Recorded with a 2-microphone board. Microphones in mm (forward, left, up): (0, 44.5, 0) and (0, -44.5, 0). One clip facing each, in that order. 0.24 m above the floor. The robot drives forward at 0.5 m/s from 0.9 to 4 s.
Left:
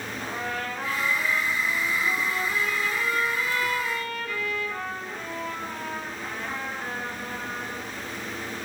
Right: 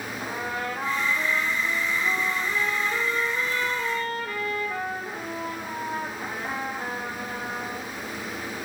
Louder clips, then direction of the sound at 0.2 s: Right 1 dB; 20° right (ahead or behind).